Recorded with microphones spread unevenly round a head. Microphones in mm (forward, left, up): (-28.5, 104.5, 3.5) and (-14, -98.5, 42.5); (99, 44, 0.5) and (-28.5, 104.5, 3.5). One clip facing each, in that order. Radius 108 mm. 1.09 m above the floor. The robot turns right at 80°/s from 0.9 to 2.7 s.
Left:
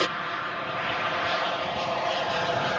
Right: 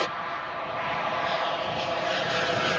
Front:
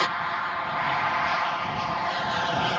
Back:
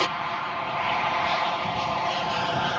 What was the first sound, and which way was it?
An aircraft, 110° left.